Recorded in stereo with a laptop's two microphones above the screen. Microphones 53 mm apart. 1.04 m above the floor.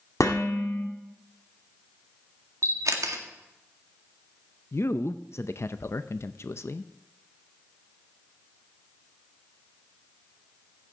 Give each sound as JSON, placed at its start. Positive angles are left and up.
{"t": 0.2, "sound": "dishes clattering", "side_deg": 75, "distance_m": 1.8}
{"t": 2.6, "sound": "a camera shutter", "side_deg": -80, "distance_m": 1.8}
{"t": 4.7, "sound": "a man speaking", "side_deg": 55, "distance_m": 0.6}